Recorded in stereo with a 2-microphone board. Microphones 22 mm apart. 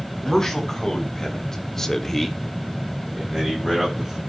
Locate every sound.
0.2 s a man speaking: 20° left (ahead or behind), 3.5 m; by 4.2 s 15° right (ahead or behind), 3 m